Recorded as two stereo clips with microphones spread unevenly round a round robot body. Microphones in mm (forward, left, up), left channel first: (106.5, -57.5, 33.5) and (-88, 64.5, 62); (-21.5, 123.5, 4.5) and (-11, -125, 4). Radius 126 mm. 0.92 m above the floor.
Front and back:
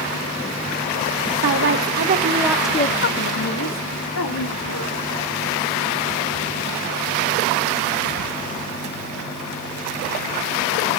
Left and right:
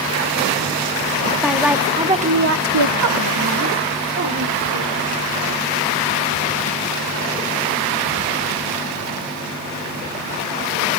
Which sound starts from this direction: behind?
A woman speaking, at 1.4 s.